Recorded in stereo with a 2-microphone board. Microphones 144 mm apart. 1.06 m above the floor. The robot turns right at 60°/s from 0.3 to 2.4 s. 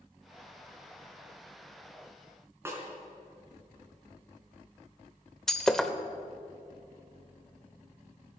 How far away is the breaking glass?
About 0.8 m.